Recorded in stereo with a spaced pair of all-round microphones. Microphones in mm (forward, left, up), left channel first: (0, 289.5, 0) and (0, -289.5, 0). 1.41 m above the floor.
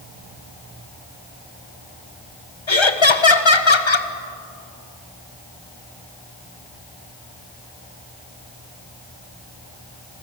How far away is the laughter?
About 1.5 m.